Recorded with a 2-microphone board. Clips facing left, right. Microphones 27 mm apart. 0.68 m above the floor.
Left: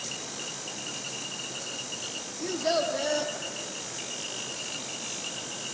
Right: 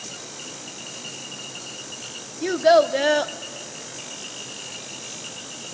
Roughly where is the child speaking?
Right.